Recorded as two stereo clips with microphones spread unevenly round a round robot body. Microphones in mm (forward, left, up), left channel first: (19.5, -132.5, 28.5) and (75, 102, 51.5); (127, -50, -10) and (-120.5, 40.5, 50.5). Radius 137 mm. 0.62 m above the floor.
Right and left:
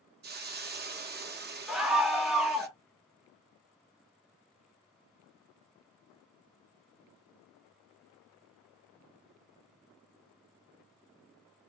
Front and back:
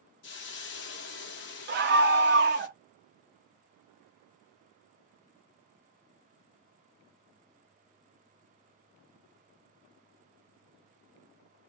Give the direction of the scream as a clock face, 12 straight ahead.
6 o'clock.